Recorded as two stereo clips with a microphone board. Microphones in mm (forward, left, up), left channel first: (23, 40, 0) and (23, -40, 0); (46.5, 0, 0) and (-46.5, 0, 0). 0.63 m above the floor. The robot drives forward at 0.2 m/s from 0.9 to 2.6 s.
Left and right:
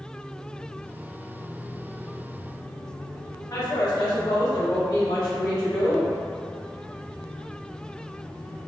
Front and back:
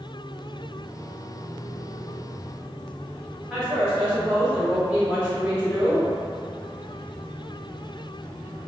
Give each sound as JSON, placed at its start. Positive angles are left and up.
{"t": 3.5, "sound": "a woman speaking", "azimuth_deg": 110, "distance_m": 0.9}